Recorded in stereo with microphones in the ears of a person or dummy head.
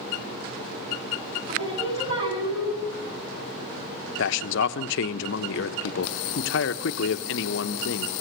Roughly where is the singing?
Right.